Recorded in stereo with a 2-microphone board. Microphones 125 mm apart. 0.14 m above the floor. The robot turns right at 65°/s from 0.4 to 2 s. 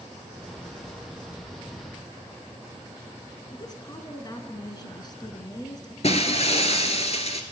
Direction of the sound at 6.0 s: 55° left (ahead or behind).